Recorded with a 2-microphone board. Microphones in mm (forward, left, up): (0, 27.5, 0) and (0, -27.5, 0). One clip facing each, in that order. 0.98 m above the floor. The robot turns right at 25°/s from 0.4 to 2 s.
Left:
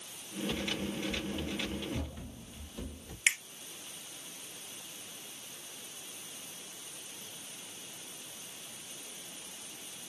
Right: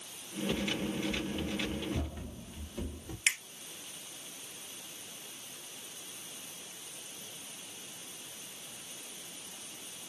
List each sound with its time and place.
0.5 s running footsteps: 30° left (ahead or behind), 2.5 m; by 3.2 s 25° right (ahead or behind), 1.3 m
3.3 s a finger snap: 20° left (ahead or behind), 0.9 m